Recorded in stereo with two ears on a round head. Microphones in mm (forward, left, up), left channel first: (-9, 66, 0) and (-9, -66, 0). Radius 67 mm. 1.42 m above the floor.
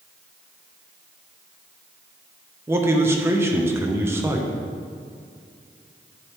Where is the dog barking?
I don't hear a dog barking.